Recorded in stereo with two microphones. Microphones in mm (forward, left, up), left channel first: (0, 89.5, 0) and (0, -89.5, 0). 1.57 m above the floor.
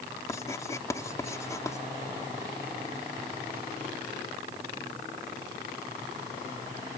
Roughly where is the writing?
Centre.